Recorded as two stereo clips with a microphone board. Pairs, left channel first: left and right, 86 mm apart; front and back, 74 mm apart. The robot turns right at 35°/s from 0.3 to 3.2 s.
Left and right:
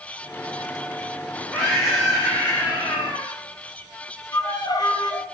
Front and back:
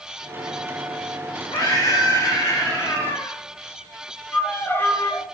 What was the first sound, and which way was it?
A scream, 5° right.